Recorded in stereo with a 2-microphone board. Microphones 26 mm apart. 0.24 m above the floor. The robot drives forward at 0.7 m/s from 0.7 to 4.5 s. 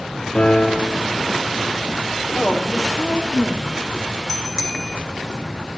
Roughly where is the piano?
Left.